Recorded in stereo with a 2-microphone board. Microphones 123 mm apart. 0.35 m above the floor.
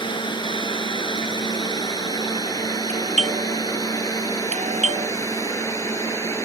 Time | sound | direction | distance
0.0 | a drone | 40° left (ahead or behind) | ?
2.9 | a doorbell | 70° right (ahead or behind) | ?